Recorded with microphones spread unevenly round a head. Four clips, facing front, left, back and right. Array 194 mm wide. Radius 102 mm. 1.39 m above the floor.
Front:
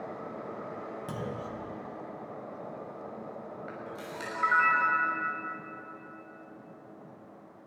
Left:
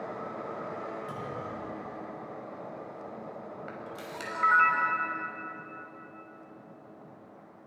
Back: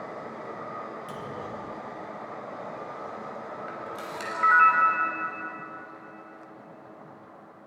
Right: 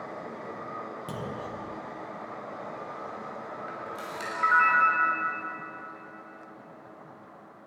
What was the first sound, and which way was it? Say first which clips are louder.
A clunk: right 1 dB, back 1 dB; 50° right.